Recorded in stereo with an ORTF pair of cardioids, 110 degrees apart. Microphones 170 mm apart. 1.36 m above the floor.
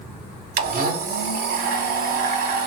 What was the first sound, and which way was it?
A blender, 60° right.